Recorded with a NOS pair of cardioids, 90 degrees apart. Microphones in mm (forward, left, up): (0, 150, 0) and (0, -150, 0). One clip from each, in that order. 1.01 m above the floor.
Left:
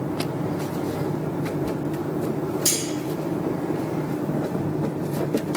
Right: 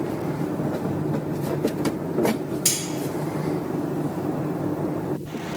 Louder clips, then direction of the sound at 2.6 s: Even; 65° right.